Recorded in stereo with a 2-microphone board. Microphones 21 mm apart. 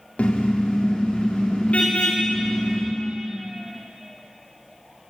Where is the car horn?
85° left, 6.5 m.